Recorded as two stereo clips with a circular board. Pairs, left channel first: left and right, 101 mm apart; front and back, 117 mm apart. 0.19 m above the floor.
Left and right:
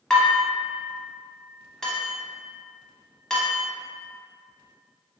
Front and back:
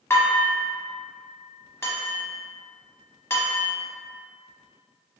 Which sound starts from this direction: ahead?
Dishes clattering, at 0.1 s.